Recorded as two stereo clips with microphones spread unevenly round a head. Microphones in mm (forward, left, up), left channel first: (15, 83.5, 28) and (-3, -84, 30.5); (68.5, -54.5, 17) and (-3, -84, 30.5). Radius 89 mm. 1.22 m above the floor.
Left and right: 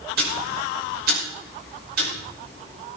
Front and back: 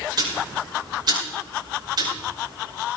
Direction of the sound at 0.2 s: 130° right.